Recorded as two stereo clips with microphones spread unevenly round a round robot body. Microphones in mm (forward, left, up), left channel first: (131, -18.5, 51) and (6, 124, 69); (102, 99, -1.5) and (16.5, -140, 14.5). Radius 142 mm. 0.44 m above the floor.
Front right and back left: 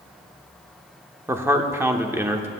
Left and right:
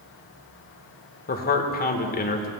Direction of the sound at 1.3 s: 55° left.